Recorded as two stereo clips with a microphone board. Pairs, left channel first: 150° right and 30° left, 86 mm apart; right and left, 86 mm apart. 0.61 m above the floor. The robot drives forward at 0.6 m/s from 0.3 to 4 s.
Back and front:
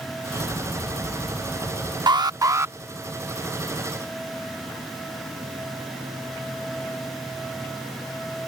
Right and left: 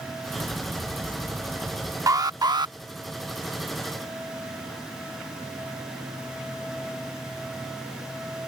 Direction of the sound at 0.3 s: 155° left.